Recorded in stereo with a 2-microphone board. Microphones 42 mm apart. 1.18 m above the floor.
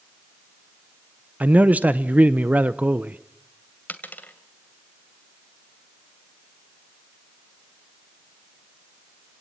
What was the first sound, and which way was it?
A man speaking, 35° right (ahead or behind).